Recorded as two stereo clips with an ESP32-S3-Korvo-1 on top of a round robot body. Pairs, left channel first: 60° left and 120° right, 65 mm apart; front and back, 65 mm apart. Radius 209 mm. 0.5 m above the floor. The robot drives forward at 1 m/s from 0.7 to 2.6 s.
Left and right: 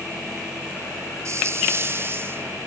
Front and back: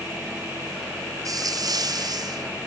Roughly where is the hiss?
Behind.